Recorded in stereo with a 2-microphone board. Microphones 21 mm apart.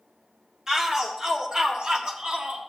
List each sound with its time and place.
0.7 s a shout: 25° right (ahead or behind), 1.9 m; by 2.6 s 55° right (ahead or behind), 1.5 m